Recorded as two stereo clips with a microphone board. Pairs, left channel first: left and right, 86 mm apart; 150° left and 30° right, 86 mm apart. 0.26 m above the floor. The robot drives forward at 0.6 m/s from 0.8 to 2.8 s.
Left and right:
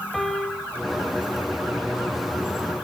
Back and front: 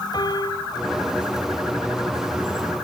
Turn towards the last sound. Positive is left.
turn(degrees=180)